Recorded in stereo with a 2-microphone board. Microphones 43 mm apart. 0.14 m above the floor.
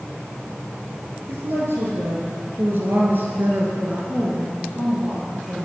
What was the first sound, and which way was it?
A woman speaking, 60° right (ahead or behind).